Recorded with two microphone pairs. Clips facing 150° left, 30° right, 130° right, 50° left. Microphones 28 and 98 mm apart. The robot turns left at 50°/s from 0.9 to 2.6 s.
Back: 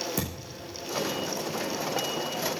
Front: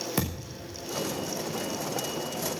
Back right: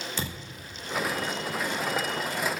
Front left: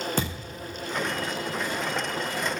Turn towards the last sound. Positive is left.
turn(degrees=-75)